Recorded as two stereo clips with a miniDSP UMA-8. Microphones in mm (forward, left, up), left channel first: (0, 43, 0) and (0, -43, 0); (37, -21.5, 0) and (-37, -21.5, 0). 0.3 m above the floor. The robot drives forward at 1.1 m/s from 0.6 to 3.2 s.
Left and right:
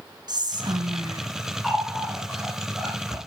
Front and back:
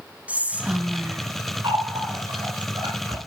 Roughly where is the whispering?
Right.